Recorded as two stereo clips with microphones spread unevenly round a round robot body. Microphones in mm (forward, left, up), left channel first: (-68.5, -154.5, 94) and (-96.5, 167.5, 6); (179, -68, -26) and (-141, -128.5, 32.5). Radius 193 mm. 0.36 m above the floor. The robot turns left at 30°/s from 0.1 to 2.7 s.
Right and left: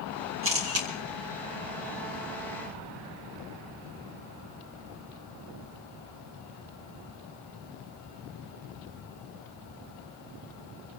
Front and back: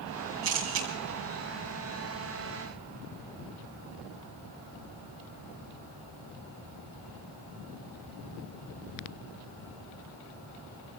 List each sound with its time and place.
0.4 s a camera shutter: 135° left, 3 m; by 0.9 s 125° left, 3 m